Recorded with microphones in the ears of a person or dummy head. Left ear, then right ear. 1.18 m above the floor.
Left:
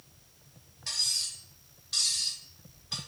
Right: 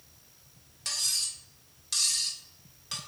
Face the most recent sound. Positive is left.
turn(degrees=-75)  # may be behind; listen again after turning